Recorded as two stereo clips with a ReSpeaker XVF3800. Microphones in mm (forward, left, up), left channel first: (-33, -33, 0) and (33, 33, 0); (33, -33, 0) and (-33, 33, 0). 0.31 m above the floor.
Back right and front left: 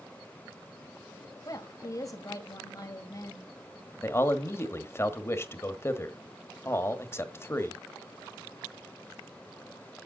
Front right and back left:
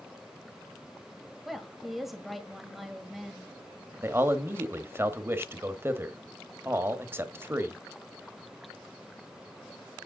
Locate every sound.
1.4 s a woman speaking: 140° right, 1.7 m
4.0 s a man speaking: straight behind, 1.1 m